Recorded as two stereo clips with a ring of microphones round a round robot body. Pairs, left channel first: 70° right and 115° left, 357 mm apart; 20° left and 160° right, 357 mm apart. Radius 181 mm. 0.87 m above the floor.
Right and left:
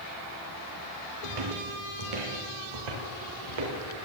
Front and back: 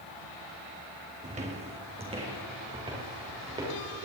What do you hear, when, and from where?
1.2 s footsteps: 130° left, 2.5 m; by 4.1 s 125° left, 6 m